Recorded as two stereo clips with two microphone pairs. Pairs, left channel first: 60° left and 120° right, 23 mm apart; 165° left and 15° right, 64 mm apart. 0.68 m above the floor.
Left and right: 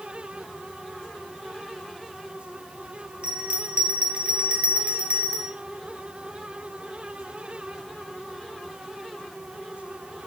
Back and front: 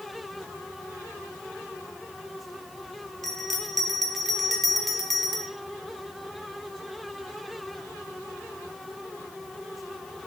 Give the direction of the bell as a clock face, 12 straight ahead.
4 o'clock.